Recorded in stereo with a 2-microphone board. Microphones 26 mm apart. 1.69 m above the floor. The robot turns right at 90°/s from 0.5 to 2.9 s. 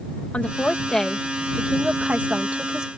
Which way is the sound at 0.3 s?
120° left.